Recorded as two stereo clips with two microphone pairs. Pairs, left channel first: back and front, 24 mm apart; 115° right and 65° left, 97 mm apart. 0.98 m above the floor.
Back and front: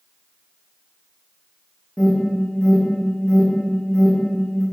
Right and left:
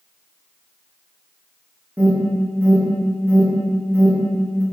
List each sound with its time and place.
2.0 s an alarm: 130° left, 2.5 m